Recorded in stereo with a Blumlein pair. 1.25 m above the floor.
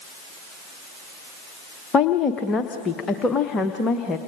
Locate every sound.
1.9 s a woman speaking: 20° left, 0.9 m